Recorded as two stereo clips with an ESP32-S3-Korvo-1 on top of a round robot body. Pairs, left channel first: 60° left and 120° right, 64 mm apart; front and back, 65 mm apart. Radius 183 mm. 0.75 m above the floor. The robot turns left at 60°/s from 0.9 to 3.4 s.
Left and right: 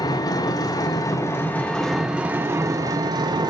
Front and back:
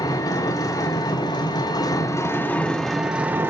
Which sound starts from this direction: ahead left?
An engine running, at 0.0 s.